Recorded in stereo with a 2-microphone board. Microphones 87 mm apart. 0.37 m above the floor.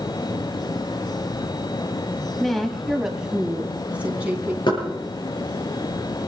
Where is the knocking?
55° left (ahead or behind), 6.5 m.